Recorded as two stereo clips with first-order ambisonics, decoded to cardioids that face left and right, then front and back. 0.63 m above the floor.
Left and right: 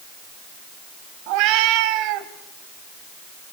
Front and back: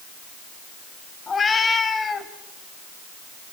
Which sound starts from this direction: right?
A cat meowing, at 1.3 s.